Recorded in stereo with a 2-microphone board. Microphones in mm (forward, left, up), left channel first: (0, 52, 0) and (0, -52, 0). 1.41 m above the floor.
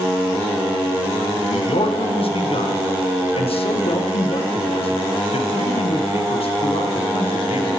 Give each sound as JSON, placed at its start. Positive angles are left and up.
{"t": 1.4, "sound": "a man speaking", "side_deg": 65, "distance_m": 0.8}